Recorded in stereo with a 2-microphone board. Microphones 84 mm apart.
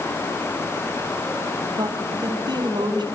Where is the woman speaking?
65° right (ahead or behind), 3 m.